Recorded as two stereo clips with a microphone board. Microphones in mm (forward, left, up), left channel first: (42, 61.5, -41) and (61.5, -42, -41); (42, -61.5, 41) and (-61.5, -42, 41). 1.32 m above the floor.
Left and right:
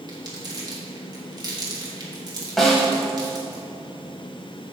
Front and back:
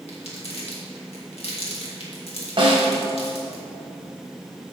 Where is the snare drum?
170° right, 1.8 m.